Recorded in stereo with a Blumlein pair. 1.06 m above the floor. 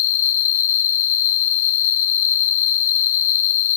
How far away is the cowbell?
I don't hear a cowbell.